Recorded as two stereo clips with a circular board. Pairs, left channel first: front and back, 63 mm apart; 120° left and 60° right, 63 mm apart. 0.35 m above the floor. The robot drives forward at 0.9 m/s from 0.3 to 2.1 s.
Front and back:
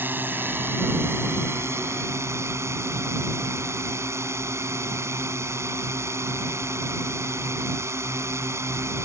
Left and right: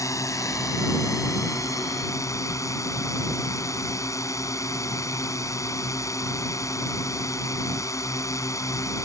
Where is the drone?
130° left; by 9.1 s 145° left.